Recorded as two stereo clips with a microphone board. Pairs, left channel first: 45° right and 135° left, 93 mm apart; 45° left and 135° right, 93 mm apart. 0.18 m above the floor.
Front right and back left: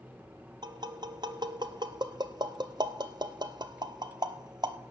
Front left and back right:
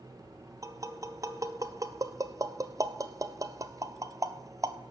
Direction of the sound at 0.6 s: 170° left.